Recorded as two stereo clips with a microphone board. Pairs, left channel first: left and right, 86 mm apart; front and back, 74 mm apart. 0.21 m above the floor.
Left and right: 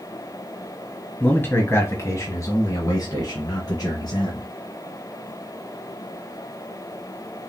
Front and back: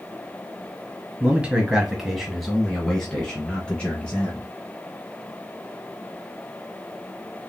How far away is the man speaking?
About 1.3 m.